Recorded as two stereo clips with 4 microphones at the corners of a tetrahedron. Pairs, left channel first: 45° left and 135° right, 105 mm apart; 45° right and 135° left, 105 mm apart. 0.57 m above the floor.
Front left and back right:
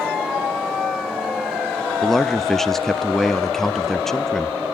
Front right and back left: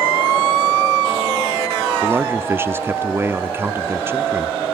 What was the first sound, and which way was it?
A man speaking, 125° left.